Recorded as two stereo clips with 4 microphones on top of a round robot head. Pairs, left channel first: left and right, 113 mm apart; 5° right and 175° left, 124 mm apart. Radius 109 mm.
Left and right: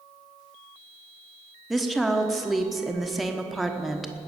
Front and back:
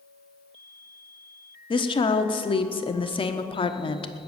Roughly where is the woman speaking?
Ahead.